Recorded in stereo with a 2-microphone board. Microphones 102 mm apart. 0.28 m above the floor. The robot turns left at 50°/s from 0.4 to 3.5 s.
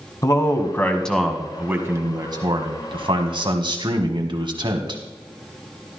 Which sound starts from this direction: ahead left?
A man speaking, at 0.2 s.